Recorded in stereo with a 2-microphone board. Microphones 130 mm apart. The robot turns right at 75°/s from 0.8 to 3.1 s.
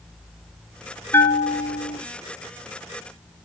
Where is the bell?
20° left, 0.7 m; by 2.0 s 85° left, 0.7 m.